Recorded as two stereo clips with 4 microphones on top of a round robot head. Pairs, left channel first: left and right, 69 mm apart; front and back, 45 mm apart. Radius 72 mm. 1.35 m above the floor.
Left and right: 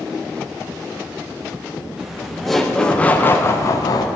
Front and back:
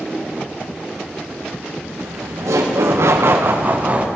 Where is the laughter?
175° right, 1.2 m; by 4.1 s 115° left, 0.8 m.